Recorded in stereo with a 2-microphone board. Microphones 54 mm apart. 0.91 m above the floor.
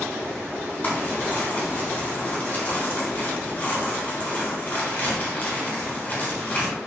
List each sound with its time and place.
0.8 s crumpling: 35° left (ahead or behind), 4 m